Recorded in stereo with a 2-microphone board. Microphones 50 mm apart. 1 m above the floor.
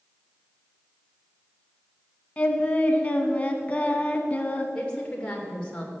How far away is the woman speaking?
About 3 m.